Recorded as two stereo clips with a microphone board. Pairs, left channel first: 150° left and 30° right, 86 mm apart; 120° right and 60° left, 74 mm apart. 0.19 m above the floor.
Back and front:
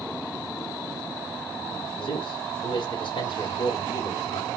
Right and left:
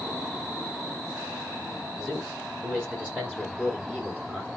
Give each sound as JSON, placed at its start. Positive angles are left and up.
{"t": 2.0, "sound": "a man speaking", "azimuth_deg": 140, "distance_m": 9.5}